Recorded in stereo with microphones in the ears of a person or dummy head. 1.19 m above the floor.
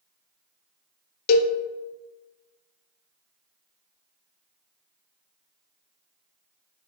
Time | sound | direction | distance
1.3 | a cowbell | 55° left (ahead or behind) | 0.6 m